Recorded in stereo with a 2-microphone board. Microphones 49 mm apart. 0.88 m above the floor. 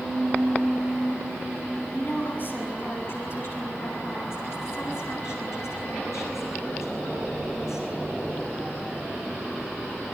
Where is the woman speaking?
40° left (ahead or behind), 8 m; by 7.9 s 75° left (ahead or behind), 13.5 m.